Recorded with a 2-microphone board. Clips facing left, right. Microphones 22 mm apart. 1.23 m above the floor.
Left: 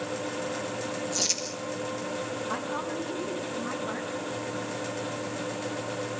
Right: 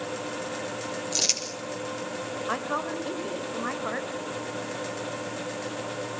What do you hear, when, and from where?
1.1 s crumpling: 55° right (ahead or behind), 6.5 m
2.5 s a woman speaking: 85° right, 5 m